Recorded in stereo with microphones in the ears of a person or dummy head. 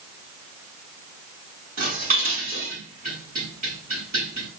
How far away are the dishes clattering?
About 7 m.